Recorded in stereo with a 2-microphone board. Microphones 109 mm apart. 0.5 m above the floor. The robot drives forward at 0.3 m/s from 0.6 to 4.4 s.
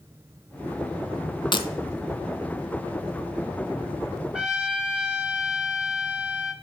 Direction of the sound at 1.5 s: 45° left (ahead or behind).